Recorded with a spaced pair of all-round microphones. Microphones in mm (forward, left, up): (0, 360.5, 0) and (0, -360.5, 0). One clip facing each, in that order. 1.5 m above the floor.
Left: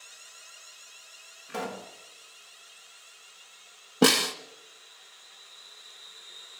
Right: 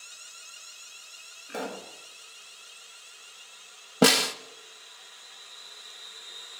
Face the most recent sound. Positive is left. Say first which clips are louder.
# even
turn(degrees=-20)  # may be behind; listen again after turning